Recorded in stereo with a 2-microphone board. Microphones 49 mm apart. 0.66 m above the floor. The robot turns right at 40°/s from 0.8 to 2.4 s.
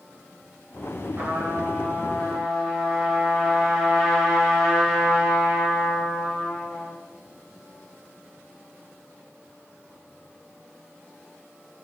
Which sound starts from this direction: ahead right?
A trumpet, at 1.2 s.